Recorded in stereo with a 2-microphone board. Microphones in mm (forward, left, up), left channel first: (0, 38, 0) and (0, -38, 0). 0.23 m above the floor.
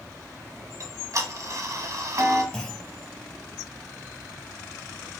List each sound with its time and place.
0.8 s ticking: 50° right (ahead or behind), 0.7 m
2.5 s a clunk: 10° left (ahead or behind), 0.7 m